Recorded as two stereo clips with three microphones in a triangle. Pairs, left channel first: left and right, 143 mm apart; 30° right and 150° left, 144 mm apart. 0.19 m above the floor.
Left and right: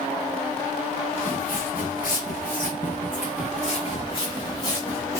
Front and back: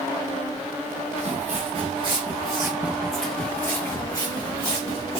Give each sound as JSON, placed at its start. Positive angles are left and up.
{"t": 1.2, "sound": "footsteps", "azimuth_deg": 115, "distance_m": 1.2}